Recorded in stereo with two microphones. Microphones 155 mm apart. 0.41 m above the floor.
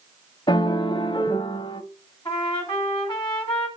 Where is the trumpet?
30° left (ahead or behind), 2 m.